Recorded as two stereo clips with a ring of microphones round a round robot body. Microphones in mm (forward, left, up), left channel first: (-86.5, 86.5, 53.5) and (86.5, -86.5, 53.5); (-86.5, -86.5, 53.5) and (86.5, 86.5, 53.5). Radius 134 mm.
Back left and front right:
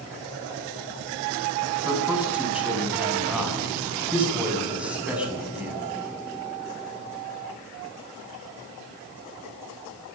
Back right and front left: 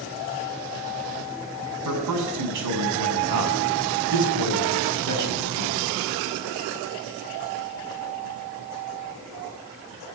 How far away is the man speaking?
About 6.5 m.